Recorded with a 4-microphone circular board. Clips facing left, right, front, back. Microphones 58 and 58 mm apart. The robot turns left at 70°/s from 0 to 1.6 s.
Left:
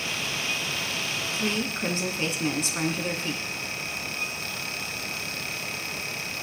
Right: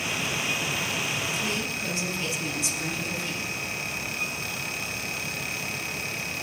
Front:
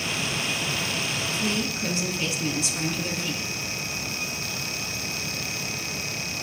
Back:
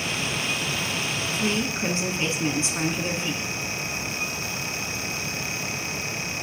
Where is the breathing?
No breathing in this recording.